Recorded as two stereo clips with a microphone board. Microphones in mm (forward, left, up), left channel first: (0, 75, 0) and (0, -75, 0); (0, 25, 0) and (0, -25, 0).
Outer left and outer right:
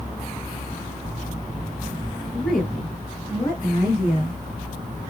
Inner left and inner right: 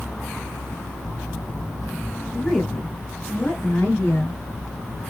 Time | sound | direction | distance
2.3 | a woman speaking | 5° right (ahead or behind) | 1.8 m